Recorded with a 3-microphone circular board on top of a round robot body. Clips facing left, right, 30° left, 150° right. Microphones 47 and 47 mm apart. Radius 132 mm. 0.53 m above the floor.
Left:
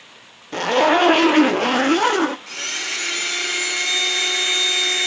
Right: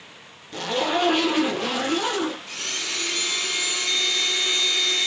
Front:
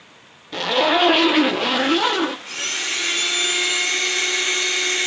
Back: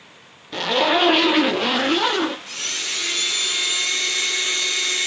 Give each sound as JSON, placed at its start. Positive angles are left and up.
{"t": 0.5, "sound": "a zipper", "azimuth_deg": 115, "distance_m": 0.7}
{"t": 2.5, "sound": "a blender", "azimuth_deg": 80, "distance_m": 1.7}